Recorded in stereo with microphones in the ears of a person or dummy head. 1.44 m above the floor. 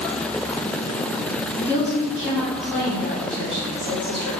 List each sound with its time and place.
1.6 s a woman speaking: 5° left (ahead or behind), 1.3 m